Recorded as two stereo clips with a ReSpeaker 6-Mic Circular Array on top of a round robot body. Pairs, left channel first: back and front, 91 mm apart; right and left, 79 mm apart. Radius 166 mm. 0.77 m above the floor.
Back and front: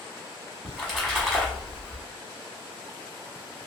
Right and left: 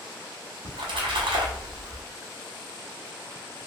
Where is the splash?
90° left, 0.9 m.